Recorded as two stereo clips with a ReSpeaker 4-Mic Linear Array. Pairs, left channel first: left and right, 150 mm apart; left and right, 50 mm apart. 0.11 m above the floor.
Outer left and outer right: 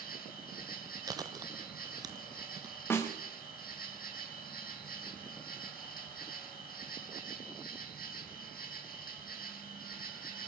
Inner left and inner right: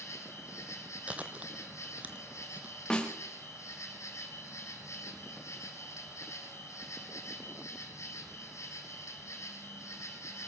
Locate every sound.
0.0 s an insect: 75° left (ahead or behind), 4.5 m
1.1 s chewing: 25° right (ahead or behind), 1.4 m
2.9 s a snare drum: 15° left (ahead or behind), 5.5 m